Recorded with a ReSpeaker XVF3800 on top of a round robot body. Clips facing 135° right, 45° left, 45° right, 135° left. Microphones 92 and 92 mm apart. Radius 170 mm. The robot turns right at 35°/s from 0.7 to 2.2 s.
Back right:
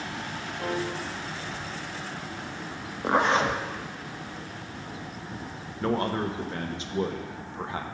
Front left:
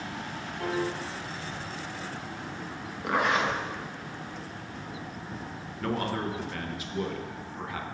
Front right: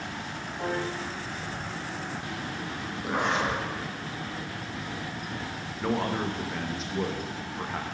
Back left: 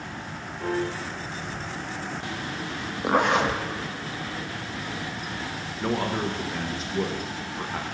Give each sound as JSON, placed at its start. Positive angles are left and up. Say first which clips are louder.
{"t": 0.6, "sound": "a piano", "louder": "even, back left 3 dB", "azimuth_deg": -65, "distance_m": 3.5}
{"t": 3.0, "sound": "a zipper", "louder": "back right 3 dB, back left 6 dB", "azimuth_deg": 165, "distance_m": 0.7}
{"t": 5.8, "sound": "a man speaking", "louder": "back right 4 dB, back left 1 dB", "azimuth_deg": -135, "distance_m": 1.1}